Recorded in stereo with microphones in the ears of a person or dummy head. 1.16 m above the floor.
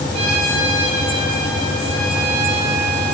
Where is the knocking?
I don't hear knocking.